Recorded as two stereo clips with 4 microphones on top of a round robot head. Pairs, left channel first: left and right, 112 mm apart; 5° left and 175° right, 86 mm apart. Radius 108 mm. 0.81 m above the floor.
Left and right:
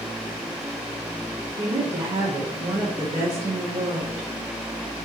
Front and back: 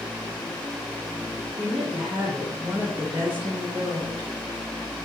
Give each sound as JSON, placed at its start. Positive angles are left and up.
{"t": 1.6, "sound": "a woman speaking", "azimuth_deg": -100, "distance_m": 2.5}